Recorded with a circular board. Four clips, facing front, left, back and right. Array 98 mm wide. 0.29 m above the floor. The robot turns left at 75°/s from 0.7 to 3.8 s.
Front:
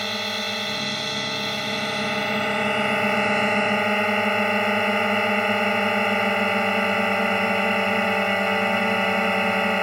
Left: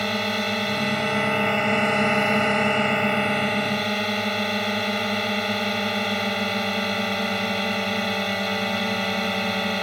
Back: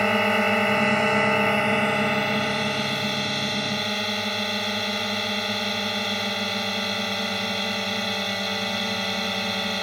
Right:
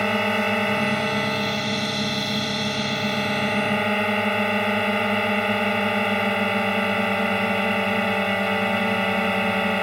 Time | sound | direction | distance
0.0 | a drone | 155° right | ?